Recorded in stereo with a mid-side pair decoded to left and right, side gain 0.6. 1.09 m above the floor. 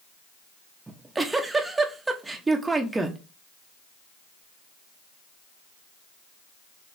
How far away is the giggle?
About 0.8 m.